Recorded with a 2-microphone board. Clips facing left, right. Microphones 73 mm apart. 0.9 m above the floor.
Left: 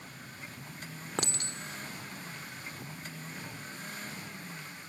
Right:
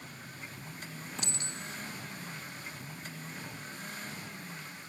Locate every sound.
1.2 s a clink: 70° left (ahead or behind), 1.2 m